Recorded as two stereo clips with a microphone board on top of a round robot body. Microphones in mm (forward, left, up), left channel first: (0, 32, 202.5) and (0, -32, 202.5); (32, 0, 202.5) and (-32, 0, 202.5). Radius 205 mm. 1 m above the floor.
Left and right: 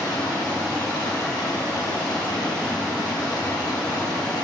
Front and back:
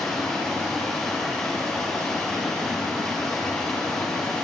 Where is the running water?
75° left, 2.5 m.